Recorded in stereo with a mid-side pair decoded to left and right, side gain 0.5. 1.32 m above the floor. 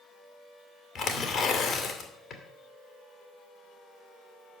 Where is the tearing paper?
60° left, 2.5 m.